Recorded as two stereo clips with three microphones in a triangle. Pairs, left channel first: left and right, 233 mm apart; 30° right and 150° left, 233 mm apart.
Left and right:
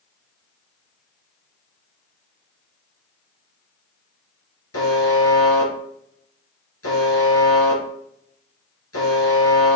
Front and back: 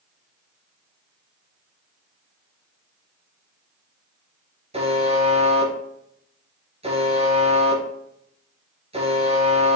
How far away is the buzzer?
About 2.5 m.